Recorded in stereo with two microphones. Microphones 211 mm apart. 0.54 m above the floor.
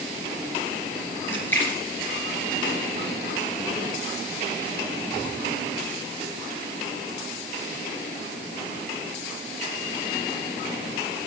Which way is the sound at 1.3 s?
10° left (ahead or behind).